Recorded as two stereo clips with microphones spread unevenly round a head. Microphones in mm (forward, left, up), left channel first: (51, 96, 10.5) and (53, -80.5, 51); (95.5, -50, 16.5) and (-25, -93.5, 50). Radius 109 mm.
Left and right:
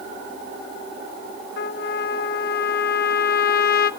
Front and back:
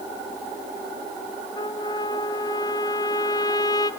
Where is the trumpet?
95° left, 0.6 m.